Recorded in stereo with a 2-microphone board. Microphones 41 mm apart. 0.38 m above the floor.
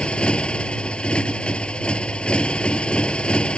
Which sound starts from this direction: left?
A motorcycle, at 0.0 s.